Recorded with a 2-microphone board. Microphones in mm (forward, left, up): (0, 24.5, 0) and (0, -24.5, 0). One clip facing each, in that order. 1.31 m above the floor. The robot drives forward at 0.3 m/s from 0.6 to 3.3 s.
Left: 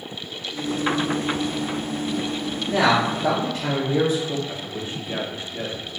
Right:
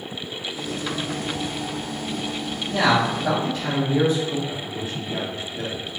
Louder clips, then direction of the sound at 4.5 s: Right 1 dB; 35° left (ahead or behind).